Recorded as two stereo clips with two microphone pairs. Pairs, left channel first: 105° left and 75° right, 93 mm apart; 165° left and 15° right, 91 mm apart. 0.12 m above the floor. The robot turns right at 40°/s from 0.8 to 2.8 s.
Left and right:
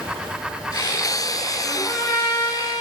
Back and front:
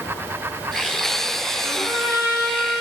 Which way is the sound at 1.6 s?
25° left.